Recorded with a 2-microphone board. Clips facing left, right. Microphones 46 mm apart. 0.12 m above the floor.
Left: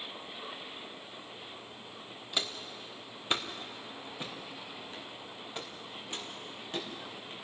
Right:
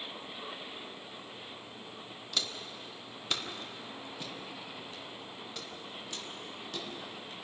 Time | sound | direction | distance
2.3 | footsteps | 25° left (ahead or behind) | 1.8 m